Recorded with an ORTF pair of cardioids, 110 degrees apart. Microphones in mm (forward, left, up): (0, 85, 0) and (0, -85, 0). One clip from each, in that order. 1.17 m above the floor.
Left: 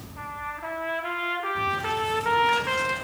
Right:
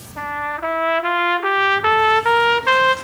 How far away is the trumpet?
About 0.8 m.